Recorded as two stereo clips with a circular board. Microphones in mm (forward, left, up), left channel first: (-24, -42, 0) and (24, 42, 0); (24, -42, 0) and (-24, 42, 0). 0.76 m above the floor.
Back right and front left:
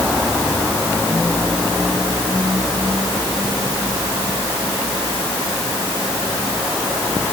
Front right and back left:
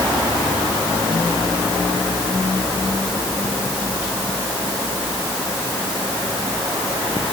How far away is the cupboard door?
No cupboard door in this recording.